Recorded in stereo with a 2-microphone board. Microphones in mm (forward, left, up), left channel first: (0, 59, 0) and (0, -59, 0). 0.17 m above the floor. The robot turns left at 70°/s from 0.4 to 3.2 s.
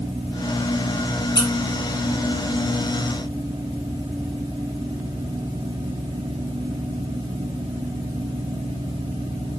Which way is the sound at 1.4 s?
35° left (ahead or behind).